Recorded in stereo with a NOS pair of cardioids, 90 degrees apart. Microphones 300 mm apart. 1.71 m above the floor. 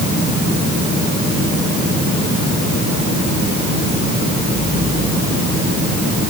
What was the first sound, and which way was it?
Only background noise.